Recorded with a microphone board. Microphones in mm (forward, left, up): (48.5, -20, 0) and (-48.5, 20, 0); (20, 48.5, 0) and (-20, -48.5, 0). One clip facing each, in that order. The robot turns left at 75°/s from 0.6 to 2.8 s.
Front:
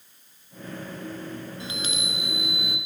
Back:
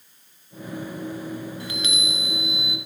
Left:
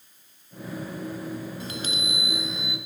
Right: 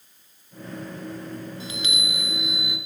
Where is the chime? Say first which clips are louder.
Back 3 dB, even; 45° left, 0.6 m; by 2.8 s 45° right, 0.6 m.